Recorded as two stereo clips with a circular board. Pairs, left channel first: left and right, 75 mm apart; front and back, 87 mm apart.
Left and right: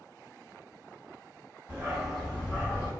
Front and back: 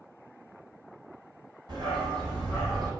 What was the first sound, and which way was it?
A dog barking, 155° right.